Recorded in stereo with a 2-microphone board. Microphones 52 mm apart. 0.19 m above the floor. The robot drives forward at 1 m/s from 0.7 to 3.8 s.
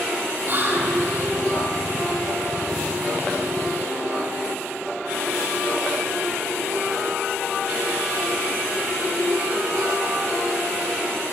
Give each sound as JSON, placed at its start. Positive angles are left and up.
{"t": 0.5, "sound": "whispering", "side_deg": -45, "distance_m": 6.0}